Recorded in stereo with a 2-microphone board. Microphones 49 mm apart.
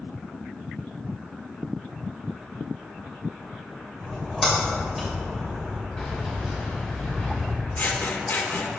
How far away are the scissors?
About 0.6 m.